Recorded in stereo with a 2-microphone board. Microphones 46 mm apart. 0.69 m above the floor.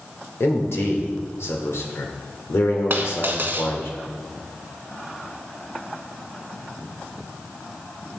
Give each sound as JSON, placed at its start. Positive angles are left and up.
{"t": 0.4, "sound": "a man speaking", "side_deg": 70, "distance_m": 1.8}
{"t": 2.9, "sound": "a dropped coin", "side_deg": -50, "distance_m": 1.2}